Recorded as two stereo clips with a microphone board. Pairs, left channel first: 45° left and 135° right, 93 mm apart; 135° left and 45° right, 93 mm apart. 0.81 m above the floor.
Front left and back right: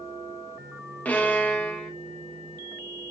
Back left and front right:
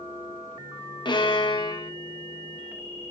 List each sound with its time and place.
1.1 s a violin: 115° left, 1.8 m